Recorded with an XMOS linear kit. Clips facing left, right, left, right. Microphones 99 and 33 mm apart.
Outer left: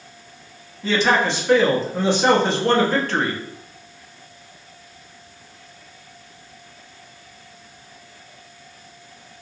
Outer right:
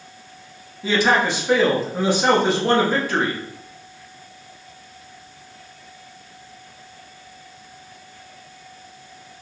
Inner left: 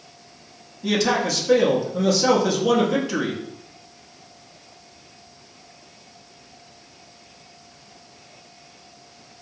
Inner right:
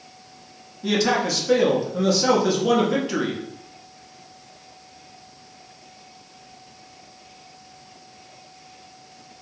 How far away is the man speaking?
About 0.6 m.